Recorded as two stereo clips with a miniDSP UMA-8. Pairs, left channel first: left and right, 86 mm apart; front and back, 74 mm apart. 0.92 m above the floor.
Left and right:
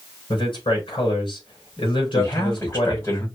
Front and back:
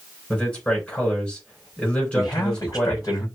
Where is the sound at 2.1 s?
40° left, 4.5 m.